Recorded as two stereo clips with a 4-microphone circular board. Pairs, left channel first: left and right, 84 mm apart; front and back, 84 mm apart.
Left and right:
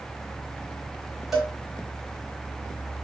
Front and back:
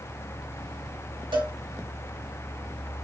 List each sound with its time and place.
1.3 s a cowbell: straight behind, 1.9 m